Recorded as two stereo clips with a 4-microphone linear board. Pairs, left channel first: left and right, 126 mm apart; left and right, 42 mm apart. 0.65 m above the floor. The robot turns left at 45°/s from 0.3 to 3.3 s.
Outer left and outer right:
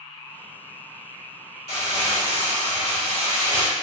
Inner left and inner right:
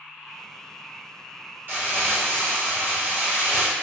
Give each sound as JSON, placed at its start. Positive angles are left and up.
{"t": 1.7, "sound": "crumpling", "azimuth_deg": -60, "distance_m": 1.2}